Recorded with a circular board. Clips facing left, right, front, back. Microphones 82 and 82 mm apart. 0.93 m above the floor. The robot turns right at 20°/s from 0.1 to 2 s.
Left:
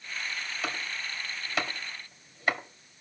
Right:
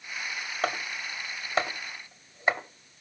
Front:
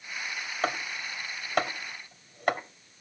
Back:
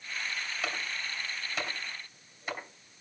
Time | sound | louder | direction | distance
0.6 | chopping | right 7 dB, front 9 dB | 50° right | 1.9 m